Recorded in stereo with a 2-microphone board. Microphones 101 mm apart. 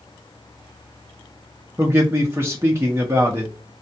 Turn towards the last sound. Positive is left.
turn(degrees=-25)  # may be behind; listen again after turning